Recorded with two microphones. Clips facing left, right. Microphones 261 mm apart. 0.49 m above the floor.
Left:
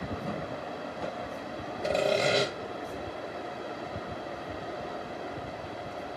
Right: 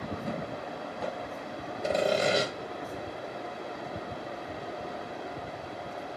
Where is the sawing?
10° right (ahead or behind), 0.6 m.